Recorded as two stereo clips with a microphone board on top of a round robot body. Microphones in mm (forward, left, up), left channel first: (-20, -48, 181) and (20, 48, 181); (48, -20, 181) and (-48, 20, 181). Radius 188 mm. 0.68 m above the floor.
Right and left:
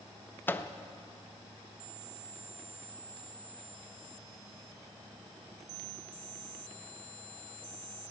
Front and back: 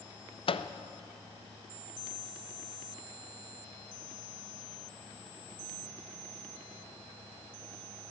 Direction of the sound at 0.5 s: 40° right.